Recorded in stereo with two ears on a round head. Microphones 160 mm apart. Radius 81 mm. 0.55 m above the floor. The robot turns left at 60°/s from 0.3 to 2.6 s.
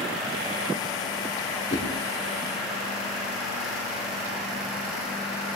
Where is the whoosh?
40° left (ahead or behind), 6 m; by 1.9 s 50° left (ahead or behind), 6 m.